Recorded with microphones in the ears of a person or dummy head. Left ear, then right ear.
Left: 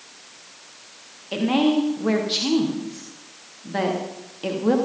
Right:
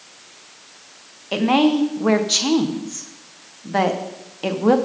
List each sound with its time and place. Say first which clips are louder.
1.3 s a woman speaking: right 3 dB; 35° right (ahead or behind), 1.5 m